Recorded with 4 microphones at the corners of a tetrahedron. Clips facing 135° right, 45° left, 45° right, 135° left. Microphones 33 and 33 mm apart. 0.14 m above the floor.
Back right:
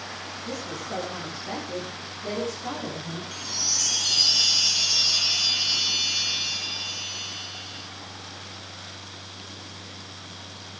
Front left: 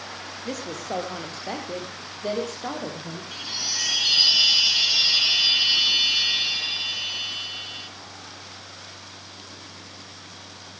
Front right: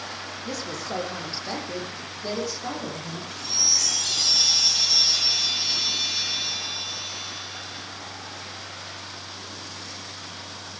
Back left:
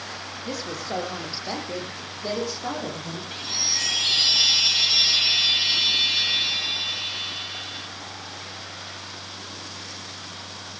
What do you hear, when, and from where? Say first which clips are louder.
0.5 s a woman speaking: front left 3 dB, back left 1 dB; 55° left, 3.5 m; by 3.2 s 60° left, 5 m
3.3 s a chime: front left 3 dB, even; 95° left, 0.8 m